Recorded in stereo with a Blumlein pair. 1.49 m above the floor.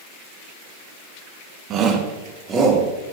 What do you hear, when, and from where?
1.7 s a shout: 30° right, 1.9 m; by 2.9 s 20° right, 3.5 m